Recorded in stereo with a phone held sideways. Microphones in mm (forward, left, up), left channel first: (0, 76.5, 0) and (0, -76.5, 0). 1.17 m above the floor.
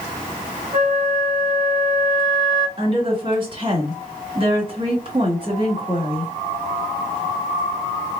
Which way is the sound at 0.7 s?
10° right (ahead or behind).